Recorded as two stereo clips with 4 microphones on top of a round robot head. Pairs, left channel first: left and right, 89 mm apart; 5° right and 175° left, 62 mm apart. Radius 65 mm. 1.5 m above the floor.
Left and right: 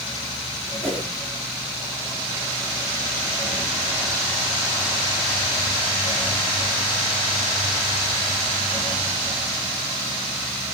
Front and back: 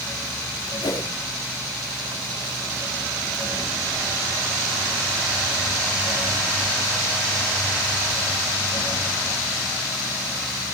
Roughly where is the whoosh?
Ahead.